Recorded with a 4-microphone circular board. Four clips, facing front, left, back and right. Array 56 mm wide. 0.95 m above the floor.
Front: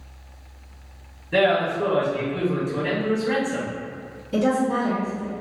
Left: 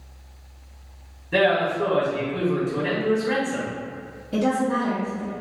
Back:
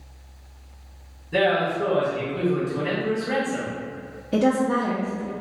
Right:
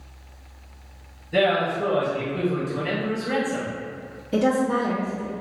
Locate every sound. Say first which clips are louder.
1.3 s a man speaking: left 1 dB, front 1 dB; 65° left, 1.9 m
4.3 s a woman speaking: right 1 dB, back 1 dB; 170° right, 1.3 m